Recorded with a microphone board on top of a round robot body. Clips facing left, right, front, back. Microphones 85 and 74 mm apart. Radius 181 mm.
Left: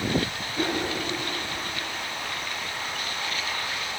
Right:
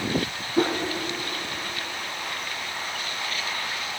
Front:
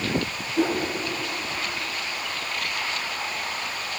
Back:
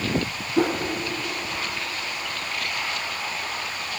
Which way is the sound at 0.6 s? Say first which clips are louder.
Right 5 dB, back 1 dB; 145° right.